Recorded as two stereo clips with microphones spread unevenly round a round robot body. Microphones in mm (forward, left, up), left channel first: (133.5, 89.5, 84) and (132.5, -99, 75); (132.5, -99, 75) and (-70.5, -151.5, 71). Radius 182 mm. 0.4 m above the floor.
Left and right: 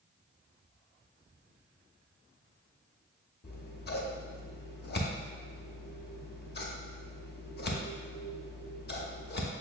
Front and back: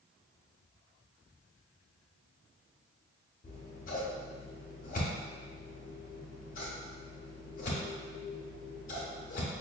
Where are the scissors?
65° left, 0.7 m.